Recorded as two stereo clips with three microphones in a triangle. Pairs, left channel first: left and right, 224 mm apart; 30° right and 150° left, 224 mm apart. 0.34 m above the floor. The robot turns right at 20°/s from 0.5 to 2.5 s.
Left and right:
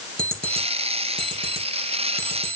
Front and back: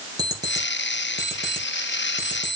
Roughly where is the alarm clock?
Behind right.